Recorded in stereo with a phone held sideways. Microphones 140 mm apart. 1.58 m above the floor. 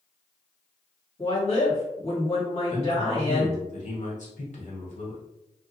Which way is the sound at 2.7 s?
60° left (ahead or behind).